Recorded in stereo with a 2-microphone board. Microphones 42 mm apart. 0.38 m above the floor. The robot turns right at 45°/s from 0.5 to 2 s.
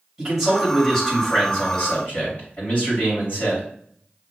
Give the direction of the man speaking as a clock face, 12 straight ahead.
12 o'clock.